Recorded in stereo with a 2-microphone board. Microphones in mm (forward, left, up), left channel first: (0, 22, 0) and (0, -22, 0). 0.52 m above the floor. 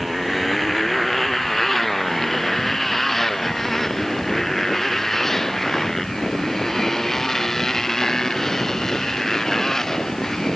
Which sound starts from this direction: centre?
A motorcycle, at 0.0 s.